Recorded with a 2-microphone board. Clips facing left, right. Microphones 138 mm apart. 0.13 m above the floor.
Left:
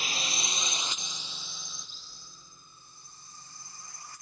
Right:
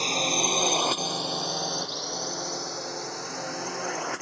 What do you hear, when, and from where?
0.0 s a drone: 35° right (ahead or behind); by 4.2 s 80° right